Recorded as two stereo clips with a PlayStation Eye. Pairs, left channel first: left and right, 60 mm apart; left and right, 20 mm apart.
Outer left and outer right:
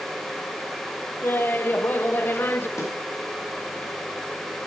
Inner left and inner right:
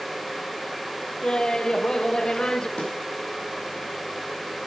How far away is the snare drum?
About 4.5 m.